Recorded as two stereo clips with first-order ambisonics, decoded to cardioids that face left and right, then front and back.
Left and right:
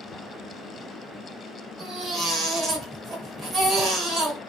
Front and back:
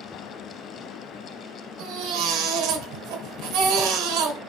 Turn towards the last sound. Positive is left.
turn(degrees=-160)